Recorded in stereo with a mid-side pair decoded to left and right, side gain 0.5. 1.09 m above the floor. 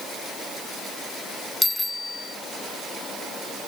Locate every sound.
1.6 s a bicycle bell: 20° left